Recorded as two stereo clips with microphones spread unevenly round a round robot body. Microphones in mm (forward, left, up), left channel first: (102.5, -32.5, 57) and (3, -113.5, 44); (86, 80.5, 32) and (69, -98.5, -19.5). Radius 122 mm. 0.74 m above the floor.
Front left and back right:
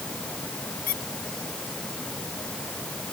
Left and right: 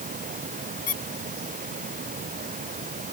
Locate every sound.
0.9 s a squeak: 45° left